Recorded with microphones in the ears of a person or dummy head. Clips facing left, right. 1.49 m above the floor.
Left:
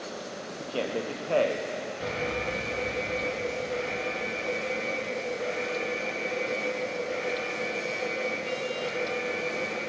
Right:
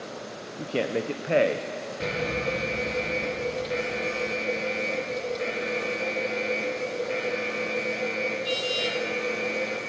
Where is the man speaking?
25° right (ahead or behind), 0.5 m.